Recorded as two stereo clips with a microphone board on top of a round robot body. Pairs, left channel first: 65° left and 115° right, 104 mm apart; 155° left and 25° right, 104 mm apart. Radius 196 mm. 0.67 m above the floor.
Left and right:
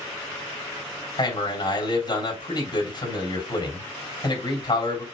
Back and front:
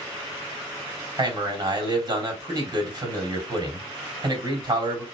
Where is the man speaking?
30° left, 3 m.